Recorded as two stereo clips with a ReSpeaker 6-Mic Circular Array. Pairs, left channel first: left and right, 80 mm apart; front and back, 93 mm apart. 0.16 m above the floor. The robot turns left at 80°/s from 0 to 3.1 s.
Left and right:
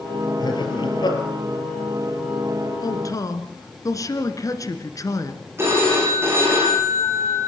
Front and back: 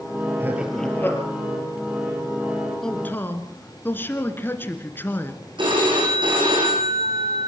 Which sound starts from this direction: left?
A man speaking, at 2.8 s.